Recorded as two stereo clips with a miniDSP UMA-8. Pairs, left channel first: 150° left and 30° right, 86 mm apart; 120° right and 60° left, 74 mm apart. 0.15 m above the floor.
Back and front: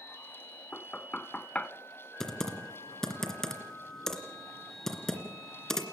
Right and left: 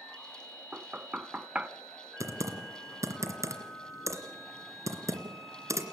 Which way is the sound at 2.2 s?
70° left.